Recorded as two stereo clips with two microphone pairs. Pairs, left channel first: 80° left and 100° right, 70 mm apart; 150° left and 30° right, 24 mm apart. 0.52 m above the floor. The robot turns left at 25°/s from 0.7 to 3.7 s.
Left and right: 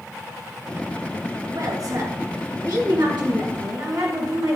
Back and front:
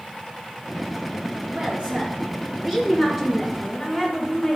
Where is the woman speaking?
65° right, 6.5 m; by 4.6 s 120° right, 6.5 m.